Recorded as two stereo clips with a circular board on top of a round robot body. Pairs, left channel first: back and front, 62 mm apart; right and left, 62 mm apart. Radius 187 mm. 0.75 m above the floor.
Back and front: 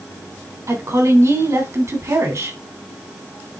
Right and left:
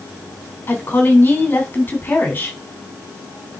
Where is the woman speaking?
35° right, 3 m.